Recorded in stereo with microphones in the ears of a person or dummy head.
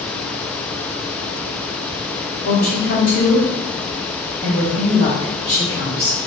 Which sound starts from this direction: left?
A woman speaking, at 2.4 s.